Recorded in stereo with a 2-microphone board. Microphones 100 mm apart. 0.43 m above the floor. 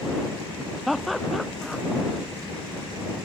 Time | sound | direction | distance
0.9 | laughter | centre (ahead or behind) | ?